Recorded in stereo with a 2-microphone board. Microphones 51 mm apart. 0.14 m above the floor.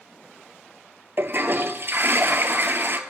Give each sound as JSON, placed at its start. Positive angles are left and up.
{"t": 1.2, "sound": "a toilet flushing", "side_deg": -50, "distance_m": 0.6}